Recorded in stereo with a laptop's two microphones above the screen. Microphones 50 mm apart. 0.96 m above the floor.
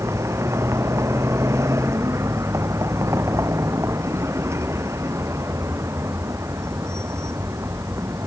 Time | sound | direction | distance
0.0 | a vehicle | 75° right (ahead or behind) | ?